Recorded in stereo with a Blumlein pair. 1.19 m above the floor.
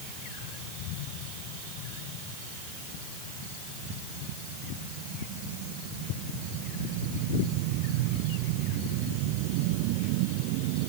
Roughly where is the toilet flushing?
I don't hear a toilet flushing.